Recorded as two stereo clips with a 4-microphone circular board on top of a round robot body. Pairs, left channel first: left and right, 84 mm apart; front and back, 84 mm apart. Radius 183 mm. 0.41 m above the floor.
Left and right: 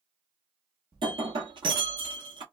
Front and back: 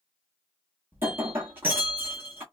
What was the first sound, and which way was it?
Breaking glass, 115° right.